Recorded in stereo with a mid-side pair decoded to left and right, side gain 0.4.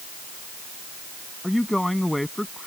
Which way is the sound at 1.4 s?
10° left.